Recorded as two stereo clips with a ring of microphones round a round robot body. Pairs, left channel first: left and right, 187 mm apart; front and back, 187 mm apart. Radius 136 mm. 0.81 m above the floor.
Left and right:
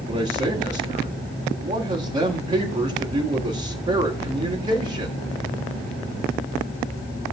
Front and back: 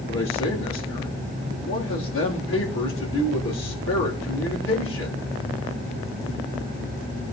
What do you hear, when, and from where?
0.1 s a man speaking: 35° right, 3.5 m